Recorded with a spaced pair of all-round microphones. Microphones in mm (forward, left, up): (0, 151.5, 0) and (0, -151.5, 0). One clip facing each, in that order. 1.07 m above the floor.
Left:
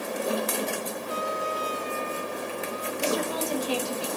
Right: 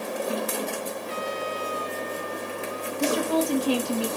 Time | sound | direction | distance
1.1 | a trumpet | 65° right (ahead or behind) | 2 m
3.0 | a woman speaking | 70° right (ahead or behind) | 1.8 m